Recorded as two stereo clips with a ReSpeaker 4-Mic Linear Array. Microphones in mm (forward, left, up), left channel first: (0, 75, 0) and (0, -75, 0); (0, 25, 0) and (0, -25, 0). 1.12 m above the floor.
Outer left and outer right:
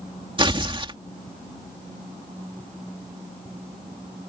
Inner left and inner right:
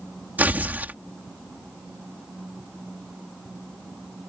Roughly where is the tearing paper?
Right.